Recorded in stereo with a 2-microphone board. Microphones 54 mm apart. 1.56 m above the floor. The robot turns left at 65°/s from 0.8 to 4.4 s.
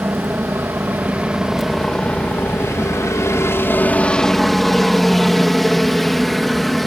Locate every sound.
0.0 s a helicopter: 125° right; by 6.9 s 5° left